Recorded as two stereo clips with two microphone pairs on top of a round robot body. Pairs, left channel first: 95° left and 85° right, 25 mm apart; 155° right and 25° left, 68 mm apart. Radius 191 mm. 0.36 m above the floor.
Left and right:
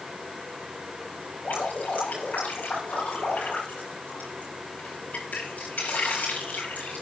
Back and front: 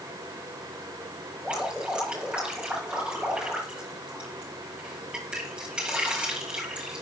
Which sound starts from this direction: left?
Dripping, at 1.4 s.